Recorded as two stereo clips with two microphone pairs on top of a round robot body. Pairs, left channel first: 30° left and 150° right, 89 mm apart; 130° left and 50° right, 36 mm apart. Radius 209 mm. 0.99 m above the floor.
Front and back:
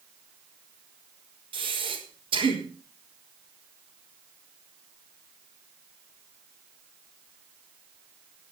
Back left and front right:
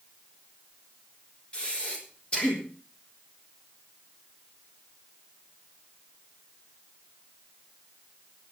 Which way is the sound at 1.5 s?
170° right.